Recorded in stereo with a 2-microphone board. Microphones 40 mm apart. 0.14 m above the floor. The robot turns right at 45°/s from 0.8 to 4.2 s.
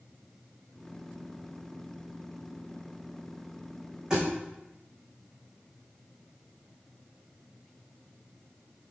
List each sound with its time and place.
4.1 s a thud: 15° right (ahead or behind), 3 m; by 4.2 s 10° right (ahead or behind), 3 m